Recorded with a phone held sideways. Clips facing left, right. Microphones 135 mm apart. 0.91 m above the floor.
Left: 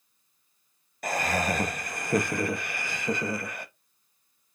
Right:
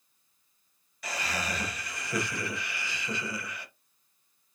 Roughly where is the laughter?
Left.